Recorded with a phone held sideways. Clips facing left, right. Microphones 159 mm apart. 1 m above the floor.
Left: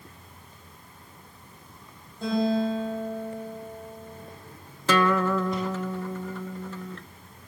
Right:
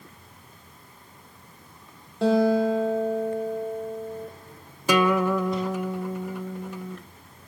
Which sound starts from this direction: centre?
A guitar, at 4.9 s.